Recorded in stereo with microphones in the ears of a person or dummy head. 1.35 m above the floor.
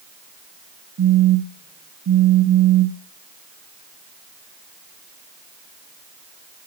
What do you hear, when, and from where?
1.0 s a phone buzzing: 65° right (ahead or behind), 0.7 m